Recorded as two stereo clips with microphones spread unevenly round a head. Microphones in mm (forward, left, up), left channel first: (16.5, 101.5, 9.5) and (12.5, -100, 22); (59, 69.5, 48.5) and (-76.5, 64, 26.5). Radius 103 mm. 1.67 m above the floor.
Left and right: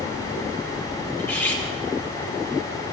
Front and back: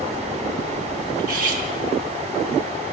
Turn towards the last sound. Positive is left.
turn(degrees=170)